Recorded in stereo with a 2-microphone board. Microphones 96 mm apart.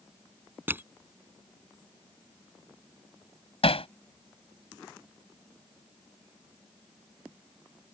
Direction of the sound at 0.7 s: 20° right (ahead or behind).